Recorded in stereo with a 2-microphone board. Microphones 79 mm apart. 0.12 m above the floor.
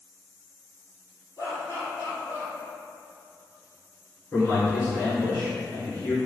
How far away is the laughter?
About 2.0 m.